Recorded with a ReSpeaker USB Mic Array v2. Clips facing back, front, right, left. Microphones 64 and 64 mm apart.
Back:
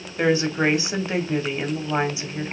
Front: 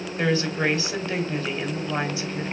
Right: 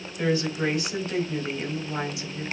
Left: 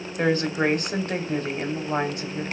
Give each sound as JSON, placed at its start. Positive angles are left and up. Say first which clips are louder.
{"t": 0.2, "sound": "a woman speaking", "louder": "back 3 dB, left 3 dB", "azimuth_deg": 115, "distance_m": 2.5}